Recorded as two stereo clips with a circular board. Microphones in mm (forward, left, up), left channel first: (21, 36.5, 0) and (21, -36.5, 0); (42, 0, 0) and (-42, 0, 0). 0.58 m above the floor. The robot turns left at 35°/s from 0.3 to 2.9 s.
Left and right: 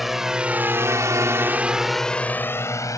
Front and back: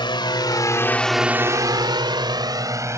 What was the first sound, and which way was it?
A drone, straight ahead.